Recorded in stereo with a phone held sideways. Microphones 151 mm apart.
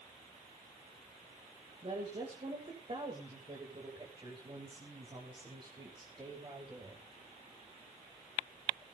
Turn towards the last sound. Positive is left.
turn(degrees=-30)  # may be behind; listen again after turning